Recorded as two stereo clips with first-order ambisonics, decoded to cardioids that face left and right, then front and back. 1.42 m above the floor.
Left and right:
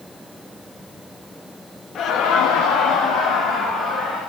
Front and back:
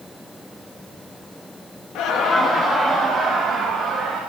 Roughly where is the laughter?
Ahead left.